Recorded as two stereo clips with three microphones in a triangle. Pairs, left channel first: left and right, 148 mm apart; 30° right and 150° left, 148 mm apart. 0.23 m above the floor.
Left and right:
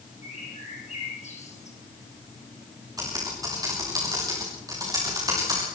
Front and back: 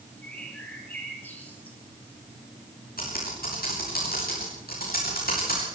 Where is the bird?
50° left, 4.5 m.